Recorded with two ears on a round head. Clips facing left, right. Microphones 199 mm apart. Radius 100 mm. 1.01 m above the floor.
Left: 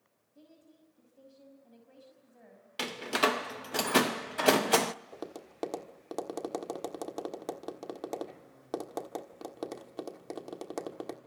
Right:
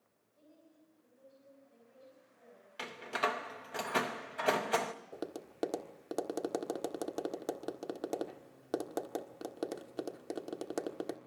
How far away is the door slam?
About 0.7 m.